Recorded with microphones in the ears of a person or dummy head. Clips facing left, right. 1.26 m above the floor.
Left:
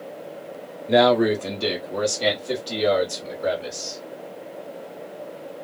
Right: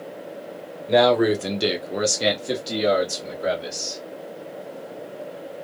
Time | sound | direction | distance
0.9 | a man speaking | 5° left (ahead or behind) | 0.5 m